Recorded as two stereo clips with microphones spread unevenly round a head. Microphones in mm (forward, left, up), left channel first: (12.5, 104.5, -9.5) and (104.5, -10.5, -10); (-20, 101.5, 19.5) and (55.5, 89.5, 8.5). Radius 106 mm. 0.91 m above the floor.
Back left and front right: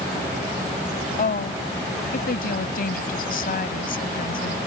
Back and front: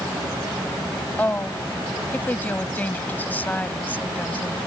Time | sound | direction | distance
1.2 | a woman speaking | 105° left | ?